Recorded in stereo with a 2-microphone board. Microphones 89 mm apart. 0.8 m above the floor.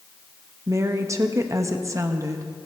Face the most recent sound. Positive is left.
turn(degrees=-35)  # may be behind; listen again after turning